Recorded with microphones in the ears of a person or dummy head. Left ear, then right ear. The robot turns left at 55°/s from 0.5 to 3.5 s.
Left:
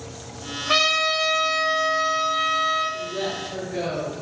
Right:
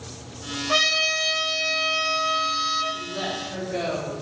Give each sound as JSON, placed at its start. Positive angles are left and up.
{"t": 0.7, "sound": "a trumpet", "azimuth_deg": 50, "distance_m": 1.0}
{"t": 2.9, "sound": "a woman speaking", "azimuth_deg": -100, "distance_m": 1.9}